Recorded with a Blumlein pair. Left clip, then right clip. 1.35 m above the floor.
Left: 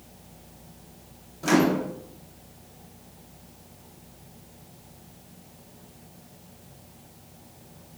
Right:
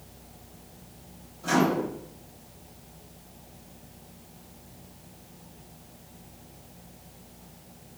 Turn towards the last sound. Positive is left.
turn(degrees=35)